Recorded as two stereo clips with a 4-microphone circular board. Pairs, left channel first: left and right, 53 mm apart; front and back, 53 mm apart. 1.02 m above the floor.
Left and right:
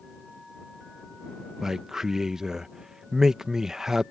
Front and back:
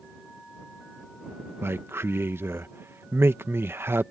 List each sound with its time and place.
1.6 s a man speaking: 170° right